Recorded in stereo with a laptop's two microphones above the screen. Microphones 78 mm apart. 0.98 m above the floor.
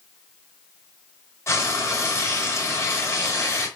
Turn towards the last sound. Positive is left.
turn(degrees=35)  # may be behind; listen again after turning